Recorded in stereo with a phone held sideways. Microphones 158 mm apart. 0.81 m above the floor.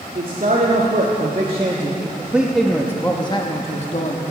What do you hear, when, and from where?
0.1 s a man speaking: 60° right (ahead or behind), 2 m; by 4.2 s 50° left (ahead or behind), 1.5 m